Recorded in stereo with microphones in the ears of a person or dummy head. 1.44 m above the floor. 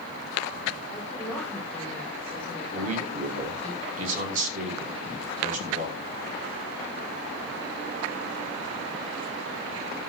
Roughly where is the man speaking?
Right.